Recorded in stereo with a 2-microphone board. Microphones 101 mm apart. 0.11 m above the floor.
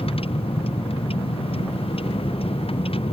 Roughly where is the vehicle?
Left.